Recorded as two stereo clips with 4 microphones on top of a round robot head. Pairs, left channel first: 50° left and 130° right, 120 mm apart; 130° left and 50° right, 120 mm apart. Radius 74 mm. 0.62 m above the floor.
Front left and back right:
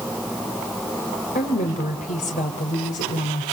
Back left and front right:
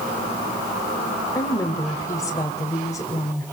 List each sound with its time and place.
1.4 s a woman speaking: 65° left, 2.5 m